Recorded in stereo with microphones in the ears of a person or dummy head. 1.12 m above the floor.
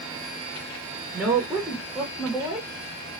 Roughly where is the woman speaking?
Centre.